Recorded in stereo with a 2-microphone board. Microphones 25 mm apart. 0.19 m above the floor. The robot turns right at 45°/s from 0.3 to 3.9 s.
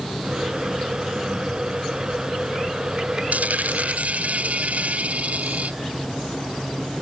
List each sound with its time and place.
3.3 s a dropped coin: 85° right; by 5.8 s 70° right (ahead or behind)